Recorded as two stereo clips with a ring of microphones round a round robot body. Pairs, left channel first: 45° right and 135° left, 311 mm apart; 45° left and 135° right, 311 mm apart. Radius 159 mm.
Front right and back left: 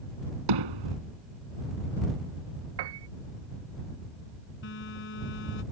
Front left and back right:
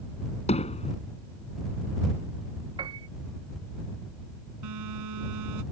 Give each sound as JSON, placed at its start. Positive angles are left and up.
{"t": 0.5, "sound": "hammering", "azimuth_deg": 115}
{"t": 2.8, "sound": "a piano", "azimuth_deg": 150}
{"t": 4.6, "sound": "a phone buzzing", "azimuth_deg": -100}